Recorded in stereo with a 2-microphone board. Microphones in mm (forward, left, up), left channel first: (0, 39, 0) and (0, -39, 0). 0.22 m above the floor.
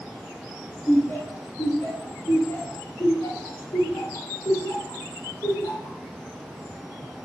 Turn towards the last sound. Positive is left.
turn(degrees=60)  # may be behind; listen again after turning